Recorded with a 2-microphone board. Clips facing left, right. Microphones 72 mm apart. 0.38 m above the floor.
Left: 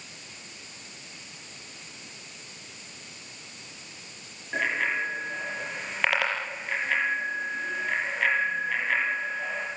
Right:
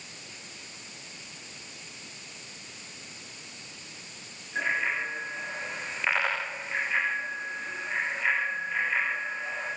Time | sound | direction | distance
4.5 | a bicycle bell | 65° left (ahead or behind) | 6 m